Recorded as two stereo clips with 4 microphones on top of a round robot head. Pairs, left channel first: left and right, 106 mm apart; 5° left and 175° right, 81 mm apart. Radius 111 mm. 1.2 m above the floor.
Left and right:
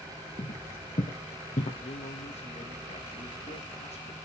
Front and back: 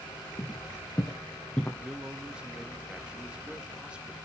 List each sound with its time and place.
0.4 s footsteps: 60° left, 2.5 m; by 1.7 s 85° left, 2.5 m
1.8 s a man speaking: 105° left, 2 m